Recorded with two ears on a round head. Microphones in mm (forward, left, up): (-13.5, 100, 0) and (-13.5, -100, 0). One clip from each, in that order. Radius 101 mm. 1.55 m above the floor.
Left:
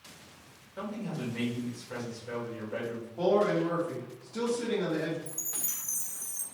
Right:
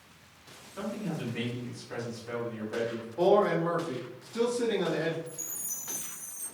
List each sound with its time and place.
0.8 s a man speaking: 10° right (ahead or behind), 1.9 m
3.2 s a man speaking: 10° right (ahead or behind), 1.4 m
5.3 s a chime: 70° left (ahead or behind), 0.8 m